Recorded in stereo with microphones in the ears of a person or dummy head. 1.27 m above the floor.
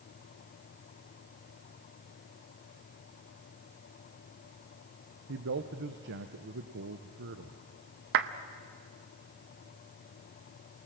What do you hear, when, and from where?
5.3 s a man speaking: 60° right (ahead or behind), 0.9 m
8.1 s a clap: 55° right (ahead or behind), 0.8 m